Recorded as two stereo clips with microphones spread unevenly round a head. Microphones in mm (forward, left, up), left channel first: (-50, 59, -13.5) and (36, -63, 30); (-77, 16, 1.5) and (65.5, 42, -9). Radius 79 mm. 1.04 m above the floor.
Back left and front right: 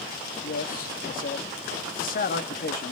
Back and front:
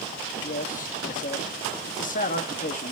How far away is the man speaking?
About 1.5 m.